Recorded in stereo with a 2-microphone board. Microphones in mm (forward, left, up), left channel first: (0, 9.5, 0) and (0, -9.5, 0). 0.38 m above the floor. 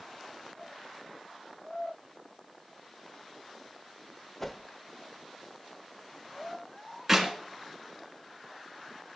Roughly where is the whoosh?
Centre.